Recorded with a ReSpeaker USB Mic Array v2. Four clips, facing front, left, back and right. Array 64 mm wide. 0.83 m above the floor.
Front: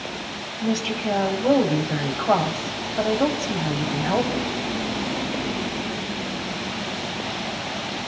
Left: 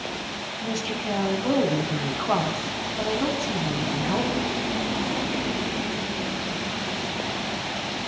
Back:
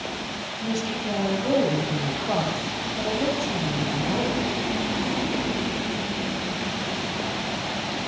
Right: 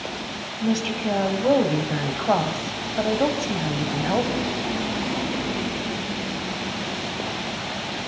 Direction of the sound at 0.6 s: 45° right.